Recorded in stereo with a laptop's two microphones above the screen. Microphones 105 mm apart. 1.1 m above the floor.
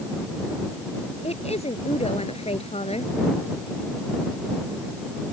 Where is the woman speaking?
80° left.